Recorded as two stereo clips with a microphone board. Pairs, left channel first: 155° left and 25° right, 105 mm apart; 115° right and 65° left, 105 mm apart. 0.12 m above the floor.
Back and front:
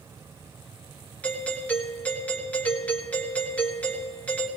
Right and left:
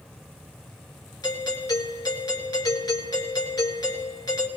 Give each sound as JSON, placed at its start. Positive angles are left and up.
{"t": 1.2, "sound": "a doorbell", "azimuth_deg": -135, "distance_m": 1.9}